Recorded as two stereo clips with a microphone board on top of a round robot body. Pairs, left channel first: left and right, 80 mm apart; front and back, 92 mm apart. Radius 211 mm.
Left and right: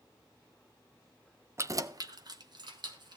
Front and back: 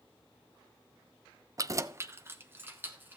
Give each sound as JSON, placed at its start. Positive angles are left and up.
{"t": 1.6, "sound": "keys jangling", "azimuth_deg": -135, "distance_m": 0.6}